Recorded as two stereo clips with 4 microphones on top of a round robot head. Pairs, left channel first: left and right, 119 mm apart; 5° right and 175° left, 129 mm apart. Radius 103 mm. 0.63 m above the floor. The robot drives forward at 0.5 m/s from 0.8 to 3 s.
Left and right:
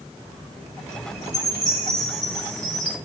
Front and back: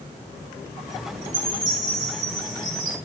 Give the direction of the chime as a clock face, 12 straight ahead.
6 o'clock.